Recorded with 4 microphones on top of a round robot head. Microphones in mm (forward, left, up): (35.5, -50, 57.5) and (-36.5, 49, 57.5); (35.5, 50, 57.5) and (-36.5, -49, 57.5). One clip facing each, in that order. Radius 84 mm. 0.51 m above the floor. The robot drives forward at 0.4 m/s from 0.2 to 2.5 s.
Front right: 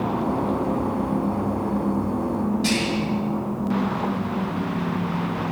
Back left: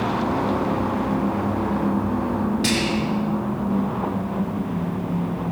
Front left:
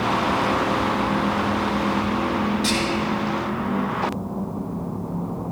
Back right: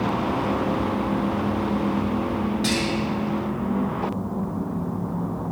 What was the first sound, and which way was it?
Whispering, 145° left.